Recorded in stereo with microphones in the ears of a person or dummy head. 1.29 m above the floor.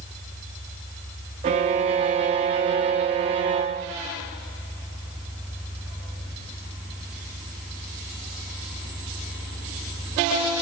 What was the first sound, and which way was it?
A violin, 25° right (ahead or behind).